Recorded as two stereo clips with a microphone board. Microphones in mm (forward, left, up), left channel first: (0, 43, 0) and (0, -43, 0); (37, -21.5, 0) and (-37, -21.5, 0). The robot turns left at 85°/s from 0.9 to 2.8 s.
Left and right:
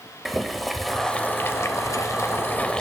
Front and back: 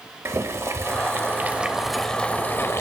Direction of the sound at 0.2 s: Straight behind.